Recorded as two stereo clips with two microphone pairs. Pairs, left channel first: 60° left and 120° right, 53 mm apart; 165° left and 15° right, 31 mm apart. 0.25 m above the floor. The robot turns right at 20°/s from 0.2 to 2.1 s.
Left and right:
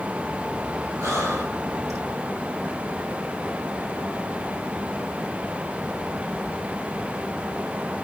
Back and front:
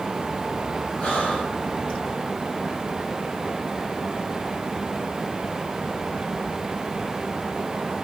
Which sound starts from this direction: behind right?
Breathing, at 1.0 s.